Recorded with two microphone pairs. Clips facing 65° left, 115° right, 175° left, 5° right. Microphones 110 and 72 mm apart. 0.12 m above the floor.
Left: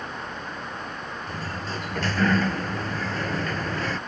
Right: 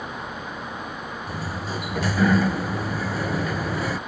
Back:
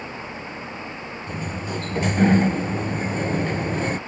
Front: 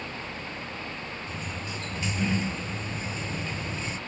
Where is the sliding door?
170° left.